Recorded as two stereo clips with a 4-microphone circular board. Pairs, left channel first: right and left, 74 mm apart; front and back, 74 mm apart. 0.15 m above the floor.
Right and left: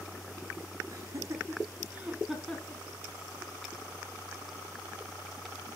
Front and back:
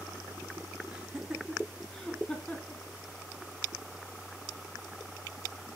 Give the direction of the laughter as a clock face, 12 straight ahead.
9 o'clock.